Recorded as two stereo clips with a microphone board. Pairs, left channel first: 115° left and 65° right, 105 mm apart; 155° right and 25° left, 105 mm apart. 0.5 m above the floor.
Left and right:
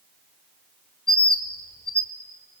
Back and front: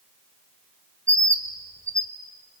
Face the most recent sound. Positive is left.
turn(degrees=80)